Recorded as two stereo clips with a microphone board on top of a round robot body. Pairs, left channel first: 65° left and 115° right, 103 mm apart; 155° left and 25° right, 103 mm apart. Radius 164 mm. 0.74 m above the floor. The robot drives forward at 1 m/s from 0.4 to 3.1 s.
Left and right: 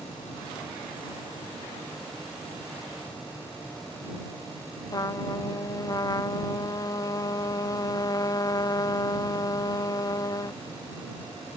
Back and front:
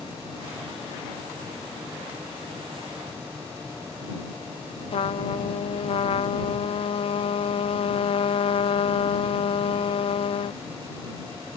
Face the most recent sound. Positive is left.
turn(degrees=125)